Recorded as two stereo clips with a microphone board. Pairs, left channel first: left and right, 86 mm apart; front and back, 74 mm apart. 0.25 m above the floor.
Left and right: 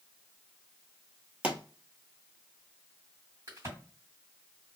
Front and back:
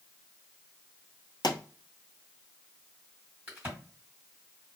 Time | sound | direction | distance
1.4 | a pop | 15° right | 0.9 m
3.5 | a crack | 120° right | 2.0 m